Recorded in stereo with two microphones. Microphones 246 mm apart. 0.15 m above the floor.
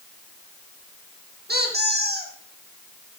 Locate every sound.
1.5 s a squeak: 45° right (ahead or behind), 3.5 m